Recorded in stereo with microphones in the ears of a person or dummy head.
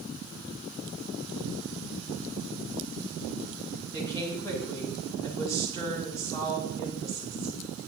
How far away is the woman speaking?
About 5 m.